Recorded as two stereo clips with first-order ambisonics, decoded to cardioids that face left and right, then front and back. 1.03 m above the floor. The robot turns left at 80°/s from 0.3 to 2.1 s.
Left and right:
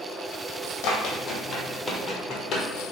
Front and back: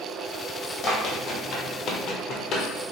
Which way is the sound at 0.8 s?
65° left.